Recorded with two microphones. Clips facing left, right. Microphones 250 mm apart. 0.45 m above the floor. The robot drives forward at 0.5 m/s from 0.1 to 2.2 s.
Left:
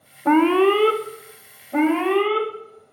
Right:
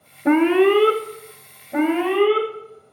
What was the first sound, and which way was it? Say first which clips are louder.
An alarm: right 1 dB; 20° right (ahead or behind).